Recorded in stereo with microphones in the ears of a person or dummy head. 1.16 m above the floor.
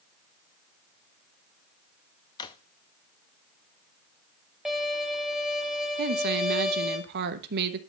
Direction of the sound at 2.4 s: 20° left (ahead or behind).